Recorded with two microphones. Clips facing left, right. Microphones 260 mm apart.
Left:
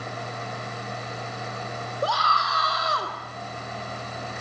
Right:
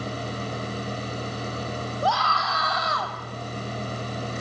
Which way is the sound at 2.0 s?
40° left (ahead or behind).